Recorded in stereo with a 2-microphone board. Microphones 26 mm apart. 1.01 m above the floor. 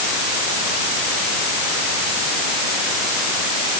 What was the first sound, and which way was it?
Only background noise.